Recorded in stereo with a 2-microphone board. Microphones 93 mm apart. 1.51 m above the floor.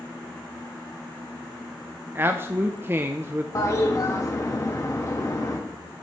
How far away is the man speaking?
About 0.6 m.